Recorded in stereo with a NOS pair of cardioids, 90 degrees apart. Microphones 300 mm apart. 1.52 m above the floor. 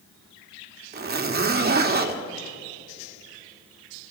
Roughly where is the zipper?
Ahead right.